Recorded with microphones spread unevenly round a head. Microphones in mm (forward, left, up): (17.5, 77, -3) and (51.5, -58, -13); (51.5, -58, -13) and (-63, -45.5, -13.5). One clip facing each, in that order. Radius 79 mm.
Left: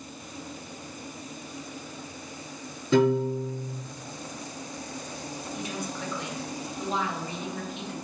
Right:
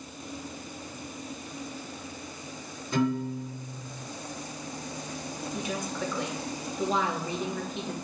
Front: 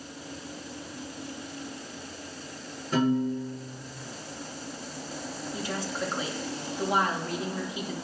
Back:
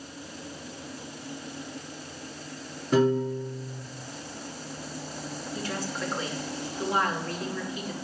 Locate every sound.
2.9 s a piano: 100° left, 4.5 m
5.5 s a woman speaking: 75° right, 3 m